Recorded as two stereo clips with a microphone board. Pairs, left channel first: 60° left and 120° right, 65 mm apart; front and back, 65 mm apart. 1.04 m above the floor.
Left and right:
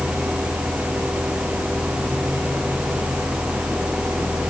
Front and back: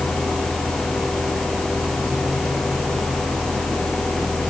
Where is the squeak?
No squeak in this recording.